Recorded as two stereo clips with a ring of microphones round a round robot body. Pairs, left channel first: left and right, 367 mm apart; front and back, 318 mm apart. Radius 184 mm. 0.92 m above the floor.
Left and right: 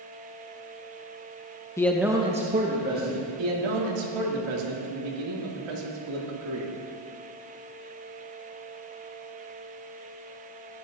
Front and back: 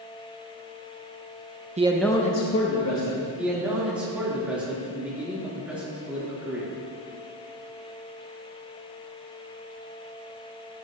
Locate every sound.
1.8 s a man speaking: 160° left, 0.8 m; by 3.3 s 30° right, 1.9 m
3.4 s a man speaking: 95° right, 2.5 m